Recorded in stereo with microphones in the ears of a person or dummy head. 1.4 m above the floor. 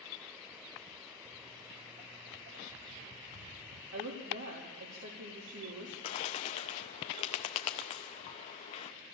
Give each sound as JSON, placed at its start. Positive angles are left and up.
{"t": 1.2, "sound": "footsteps", "side_deg": -30, "distance_m": 1.6}
{"t": 3.9, "sound": "a woman speaking", "side_deg": -80, "distance_m": 3.5}
{"t": 6.0, "sound": "a bird", "side_deg": 25, "distance_m": 0.8}